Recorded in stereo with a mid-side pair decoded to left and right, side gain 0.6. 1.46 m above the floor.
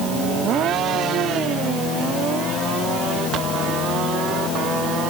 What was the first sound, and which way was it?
Only background noise.